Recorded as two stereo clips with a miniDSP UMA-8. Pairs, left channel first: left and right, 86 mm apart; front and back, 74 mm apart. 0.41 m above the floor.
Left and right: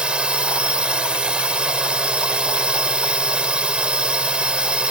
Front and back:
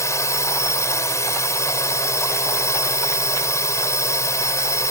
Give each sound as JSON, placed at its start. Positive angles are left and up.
{"t": 0.0, "sound": "a drone", "azimuth_deg": -15}